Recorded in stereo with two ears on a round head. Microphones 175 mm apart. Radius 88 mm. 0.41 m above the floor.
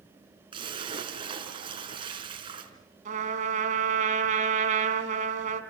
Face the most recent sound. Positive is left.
turn(degrees=-40)  # may be behind; listen again after turning